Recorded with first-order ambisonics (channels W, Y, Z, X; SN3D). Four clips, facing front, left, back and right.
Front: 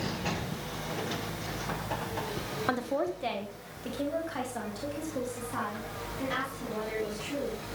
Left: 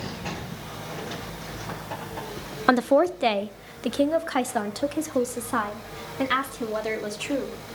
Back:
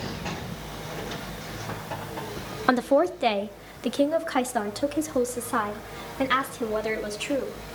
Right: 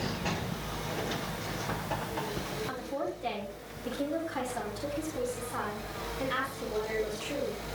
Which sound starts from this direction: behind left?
A woman speaking, at 2.7 s.